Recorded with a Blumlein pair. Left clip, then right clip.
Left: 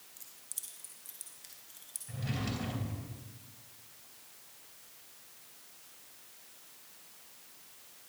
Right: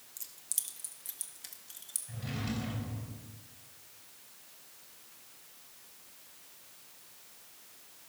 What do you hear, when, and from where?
0.2 s keys jangling: 65° right, 1.1 m; by 2.0 s 75° right, 2 m
2.1 s a drawer: 10° left, 3.5 m